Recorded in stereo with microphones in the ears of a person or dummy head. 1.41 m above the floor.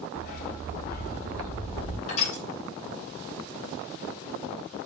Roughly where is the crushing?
Left.